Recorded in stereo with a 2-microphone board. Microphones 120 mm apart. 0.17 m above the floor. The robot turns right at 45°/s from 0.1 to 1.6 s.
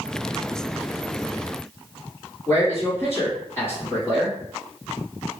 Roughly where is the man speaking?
Left.